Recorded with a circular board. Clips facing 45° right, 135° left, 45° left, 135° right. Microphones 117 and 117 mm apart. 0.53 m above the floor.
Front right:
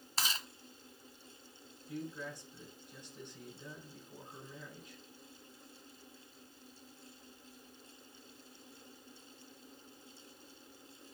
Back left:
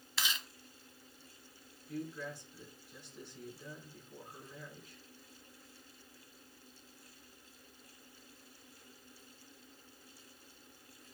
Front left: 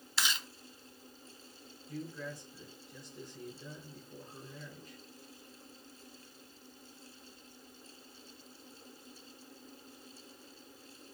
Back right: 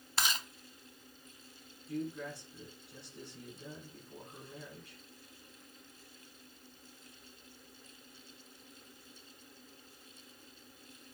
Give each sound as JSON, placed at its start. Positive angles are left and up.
{"t": 0.2, "sound": "chewing", "azimuth_deg": -95, "distance_m": 1.3}
{"t": 1.9, "sound": "a man speaking", "azimuth_deg": -115, "distance_m": 5.0}